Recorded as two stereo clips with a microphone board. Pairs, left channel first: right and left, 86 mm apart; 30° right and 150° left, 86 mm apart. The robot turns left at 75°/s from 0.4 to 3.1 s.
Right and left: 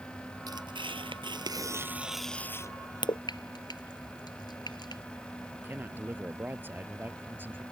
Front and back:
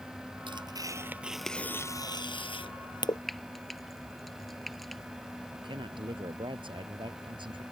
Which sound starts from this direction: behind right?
Frying, at 3.3 s.